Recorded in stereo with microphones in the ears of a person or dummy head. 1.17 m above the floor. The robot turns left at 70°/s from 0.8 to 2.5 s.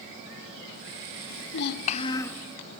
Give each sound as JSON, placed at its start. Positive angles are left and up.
{"t": 1.3, "sound": "a child speaking", "azimuth_deg": 80, "distance_m": 1.0}